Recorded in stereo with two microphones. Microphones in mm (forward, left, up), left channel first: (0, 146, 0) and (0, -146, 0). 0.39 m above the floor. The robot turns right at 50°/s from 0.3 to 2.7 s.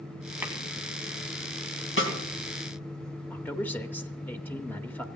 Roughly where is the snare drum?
Left.